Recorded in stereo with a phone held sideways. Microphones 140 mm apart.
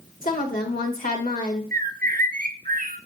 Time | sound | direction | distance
0.2 | a woman speaking | 85° left | 1.9 m
1.7 | a bird | 85° right | 0.6 m